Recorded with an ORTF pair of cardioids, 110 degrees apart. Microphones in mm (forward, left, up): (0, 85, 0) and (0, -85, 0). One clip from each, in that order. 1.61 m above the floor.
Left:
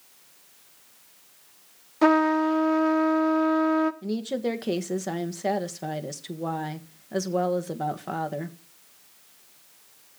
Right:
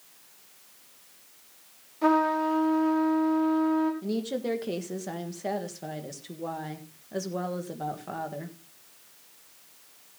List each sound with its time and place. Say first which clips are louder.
2.0 s a trumpet: left 3 dB; 65° left, 1.3 m
4.0 s a woman speaking: left 2 dB; 30° left, 1.5 m